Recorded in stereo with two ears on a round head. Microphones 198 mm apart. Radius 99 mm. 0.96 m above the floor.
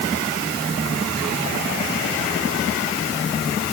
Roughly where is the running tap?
I don't hear a running tap.